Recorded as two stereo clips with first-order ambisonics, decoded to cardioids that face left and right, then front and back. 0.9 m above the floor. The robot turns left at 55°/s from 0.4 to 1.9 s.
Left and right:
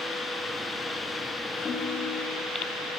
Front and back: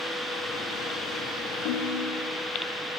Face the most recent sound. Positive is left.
turn(degrees=10)